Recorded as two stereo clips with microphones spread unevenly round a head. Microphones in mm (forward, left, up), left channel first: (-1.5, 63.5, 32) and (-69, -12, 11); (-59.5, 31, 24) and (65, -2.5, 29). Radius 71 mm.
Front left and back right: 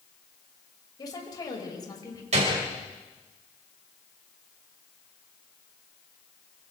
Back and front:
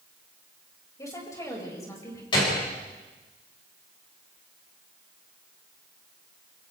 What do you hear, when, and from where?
1.0 s a woman speaking: 100° left, 7 m
2.3 s a gunshot: 140° right, 6 m